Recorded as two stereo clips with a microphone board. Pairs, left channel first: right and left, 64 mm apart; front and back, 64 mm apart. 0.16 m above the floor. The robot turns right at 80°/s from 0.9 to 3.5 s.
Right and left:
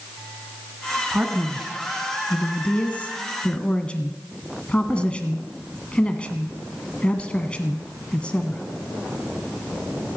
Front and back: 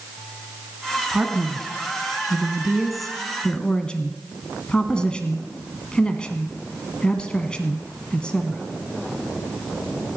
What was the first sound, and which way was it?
A man speaking, 120° left.